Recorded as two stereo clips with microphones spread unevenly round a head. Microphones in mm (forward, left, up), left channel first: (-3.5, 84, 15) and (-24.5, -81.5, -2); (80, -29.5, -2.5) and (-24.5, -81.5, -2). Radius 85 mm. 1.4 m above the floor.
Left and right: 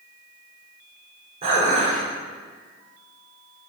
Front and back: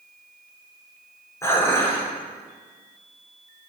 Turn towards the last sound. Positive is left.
turn(degrees=-40)